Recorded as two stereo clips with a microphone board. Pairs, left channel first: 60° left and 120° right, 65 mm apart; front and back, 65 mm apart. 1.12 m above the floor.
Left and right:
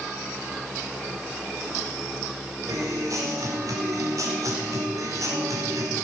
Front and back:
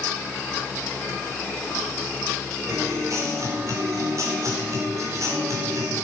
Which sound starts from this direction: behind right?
A guitar, at 2.7 s.